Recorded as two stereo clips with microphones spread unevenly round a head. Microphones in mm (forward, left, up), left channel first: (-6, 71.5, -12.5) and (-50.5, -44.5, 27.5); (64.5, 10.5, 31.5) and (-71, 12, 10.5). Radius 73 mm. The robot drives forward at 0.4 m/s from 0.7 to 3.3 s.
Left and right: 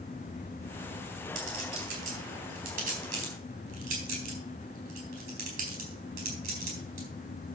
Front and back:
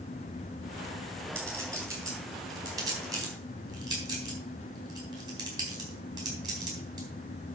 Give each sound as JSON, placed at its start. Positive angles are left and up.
{"t": 1.4, "sound": "a clink", "azimuth_deg": -105, "distance_m": 5.0}